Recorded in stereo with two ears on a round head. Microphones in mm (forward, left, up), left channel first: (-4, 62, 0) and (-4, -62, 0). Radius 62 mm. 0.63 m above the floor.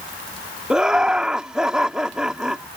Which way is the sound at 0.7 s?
5° right (ahead or behind).